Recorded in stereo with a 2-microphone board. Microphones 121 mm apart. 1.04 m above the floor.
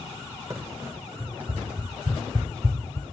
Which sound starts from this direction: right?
Running footsteps, at 0.5 s.